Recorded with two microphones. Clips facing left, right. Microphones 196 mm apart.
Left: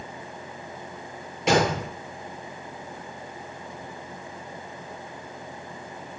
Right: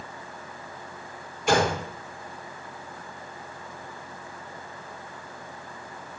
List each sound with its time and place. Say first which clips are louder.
1.5 s a gunshot: left 1 dB; 80° left, 6 m